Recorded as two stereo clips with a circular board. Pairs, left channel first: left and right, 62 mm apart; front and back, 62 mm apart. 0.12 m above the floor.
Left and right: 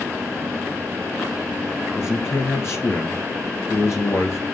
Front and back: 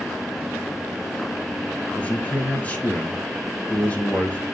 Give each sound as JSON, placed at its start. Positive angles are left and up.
{"t": 1.9, "sound": "a man speaking", "azimuth_deg": 65, "distance_m": 1.8}